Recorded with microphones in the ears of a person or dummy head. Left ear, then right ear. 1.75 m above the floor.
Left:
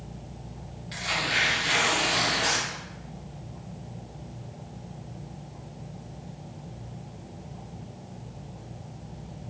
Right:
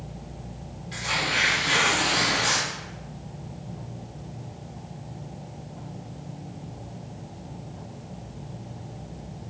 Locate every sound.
0.9 s tearing paper: 25° left (ahead or behind), 0.9 m